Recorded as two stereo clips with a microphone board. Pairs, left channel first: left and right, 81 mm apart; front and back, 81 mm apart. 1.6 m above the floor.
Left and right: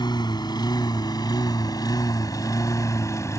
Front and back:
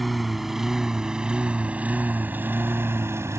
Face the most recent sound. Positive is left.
turn(degrees=130)